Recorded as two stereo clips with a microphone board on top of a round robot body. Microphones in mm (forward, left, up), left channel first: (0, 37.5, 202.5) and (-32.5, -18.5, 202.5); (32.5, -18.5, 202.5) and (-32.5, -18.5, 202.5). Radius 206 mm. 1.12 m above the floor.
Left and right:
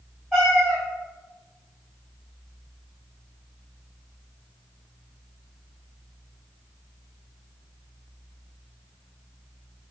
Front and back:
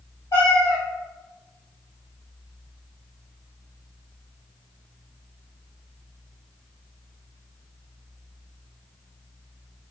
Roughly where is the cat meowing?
Ahead right.